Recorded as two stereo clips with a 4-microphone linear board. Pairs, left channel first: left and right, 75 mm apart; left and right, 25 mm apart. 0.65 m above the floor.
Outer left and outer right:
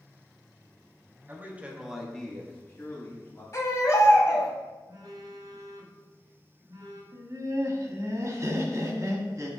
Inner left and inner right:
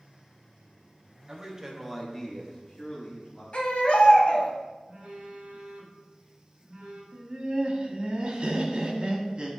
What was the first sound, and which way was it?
A man speaking, 30° right (ahead or behind).